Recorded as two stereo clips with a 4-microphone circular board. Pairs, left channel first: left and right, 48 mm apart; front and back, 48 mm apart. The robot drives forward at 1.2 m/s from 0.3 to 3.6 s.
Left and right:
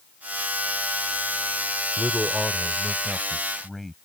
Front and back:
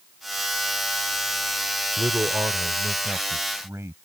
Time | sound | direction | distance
2.0 | a man speaking | 175° left | ?